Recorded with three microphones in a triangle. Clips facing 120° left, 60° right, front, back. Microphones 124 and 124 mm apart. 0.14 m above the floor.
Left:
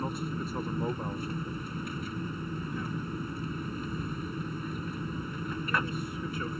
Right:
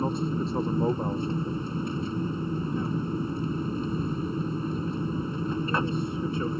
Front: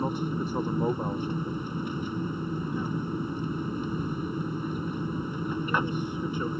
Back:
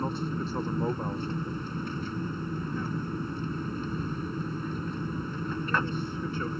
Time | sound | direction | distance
0.0 | an aircraft | 60° right | ?